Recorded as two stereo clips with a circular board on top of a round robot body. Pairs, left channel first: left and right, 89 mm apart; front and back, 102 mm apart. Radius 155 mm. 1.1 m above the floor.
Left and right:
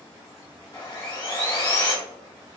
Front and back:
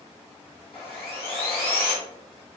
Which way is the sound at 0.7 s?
35° left.